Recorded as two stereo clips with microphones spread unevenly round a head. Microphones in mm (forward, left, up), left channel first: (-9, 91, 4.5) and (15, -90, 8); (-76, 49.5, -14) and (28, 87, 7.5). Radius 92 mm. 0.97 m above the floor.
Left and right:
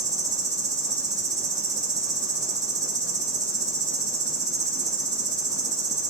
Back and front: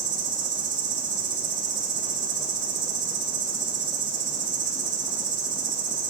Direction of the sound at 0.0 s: 10° right.